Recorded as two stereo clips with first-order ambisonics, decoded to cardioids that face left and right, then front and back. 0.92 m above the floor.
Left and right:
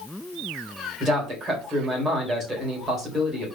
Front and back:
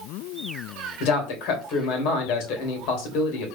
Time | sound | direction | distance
1.0 | a man speaking | 20° right | 3 m